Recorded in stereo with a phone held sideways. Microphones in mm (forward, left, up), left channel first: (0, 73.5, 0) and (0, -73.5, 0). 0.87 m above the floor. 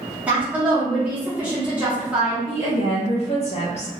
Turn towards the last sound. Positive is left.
turn(degrees=50)  # may be behind; listen again after turning